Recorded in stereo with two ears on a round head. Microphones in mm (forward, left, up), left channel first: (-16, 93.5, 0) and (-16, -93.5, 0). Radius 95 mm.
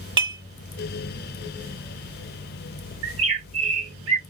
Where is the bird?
65° right (ahead or behind), 1.7 m.